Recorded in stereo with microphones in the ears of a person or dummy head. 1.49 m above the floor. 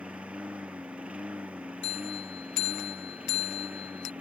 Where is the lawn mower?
10° right (ahead or behind); by 4.2 s 15° right (ahead or behind).